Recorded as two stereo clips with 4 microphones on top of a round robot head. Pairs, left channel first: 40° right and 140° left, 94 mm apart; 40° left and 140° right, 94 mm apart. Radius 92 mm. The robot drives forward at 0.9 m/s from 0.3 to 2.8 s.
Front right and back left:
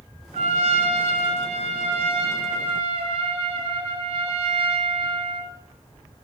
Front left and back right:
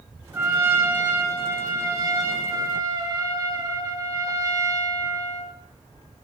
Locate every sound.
0.3 s a trumpet: 145° left, 3.5 m; by 5.5 s 160° left, 5.5 m